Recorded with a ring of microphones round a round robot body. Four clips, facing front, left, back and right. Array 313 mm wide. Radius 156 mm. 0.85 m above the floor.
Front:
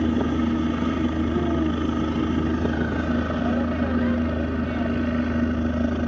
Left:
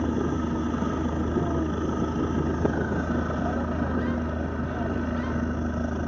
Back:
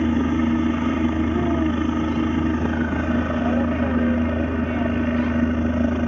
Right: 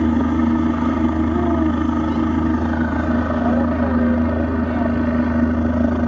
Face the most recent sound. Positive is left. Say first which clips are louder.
# right 10 dB, back 2 dB
turn(degrees=-105)